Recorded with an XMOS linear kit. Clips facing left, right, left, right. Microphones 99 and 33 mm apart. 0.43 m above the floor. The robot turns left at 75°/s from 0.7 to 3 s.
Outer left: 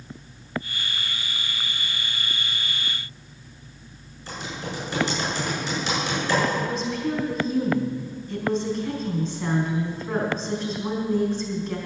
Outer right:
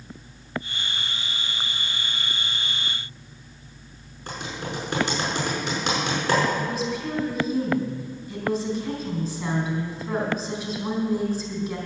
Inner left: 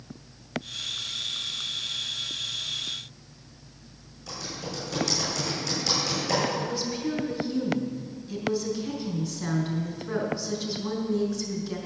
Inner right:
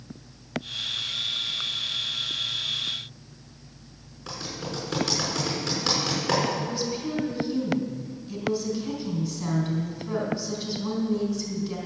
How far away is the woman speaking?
About 4 m.